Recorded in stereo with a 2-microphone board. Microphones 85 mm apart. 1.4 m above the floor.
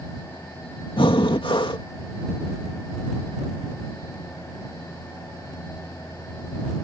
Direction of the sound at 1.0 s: 75° left (ahead or behind).